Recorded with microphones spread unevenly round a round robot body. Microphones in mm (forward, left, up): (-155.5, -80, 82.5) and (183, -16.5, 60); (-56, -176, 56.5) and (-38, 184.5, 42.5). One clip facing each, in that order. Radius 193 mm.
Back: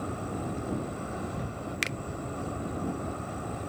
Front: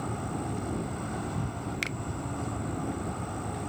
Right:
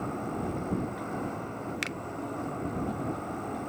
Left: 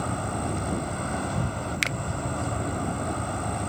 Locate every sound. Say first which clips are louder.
0.0 s an insect: even, left 2 dB; 85° left
1.8 s a finger snap: even, left 3 dB; 110° left